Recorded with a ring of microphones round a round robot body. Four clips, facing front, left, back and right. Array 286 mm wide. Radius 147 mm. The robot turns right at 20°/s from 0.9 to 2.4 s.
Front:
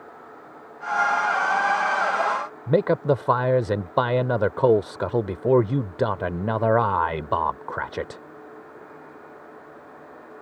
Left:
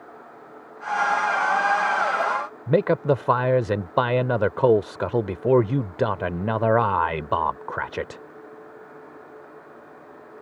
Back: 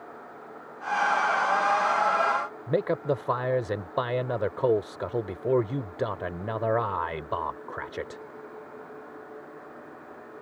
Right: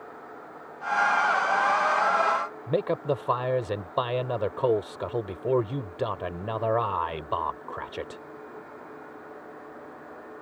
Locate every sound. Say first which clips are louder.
2.7 s a man speaking: left 7 dB, front 7 dB; 50° left